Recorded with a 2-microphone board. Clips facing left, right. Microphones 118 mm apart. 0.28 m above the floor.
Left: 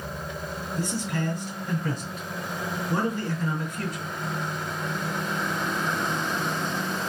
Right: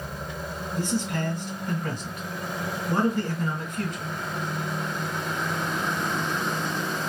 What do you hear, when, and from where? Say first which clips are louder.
0.8 s a man speaking: right 2 dB; 55° right (ahead or behind), 2.0 m